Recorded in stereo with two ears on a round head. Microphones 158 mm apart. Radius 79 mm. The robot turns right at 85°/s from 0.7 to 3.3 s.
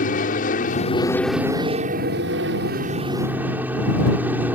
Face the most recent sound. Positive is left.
turn(degrees=-10)